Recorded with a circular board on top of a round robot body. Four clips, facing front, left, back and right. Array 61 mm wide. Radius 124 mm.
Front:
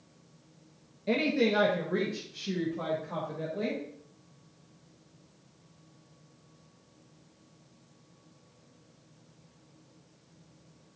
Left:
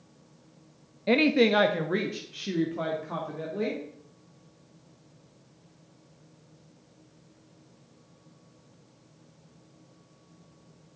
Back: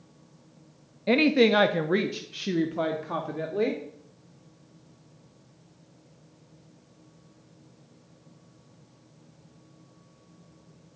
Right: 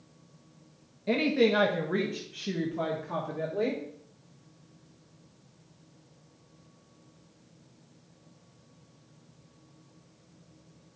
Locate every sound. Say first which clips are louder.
1.1 s a woman speaking: left 3 dB, back 7 dB; 135° left, 0.8 m; by 3.8 s 175° left, 1.9 m